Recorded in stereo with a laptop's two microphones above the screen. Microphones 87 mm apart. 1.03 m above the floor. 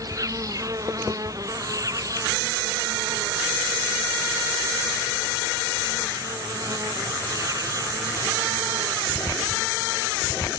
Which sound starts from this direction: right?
An insect, at 0.0 s.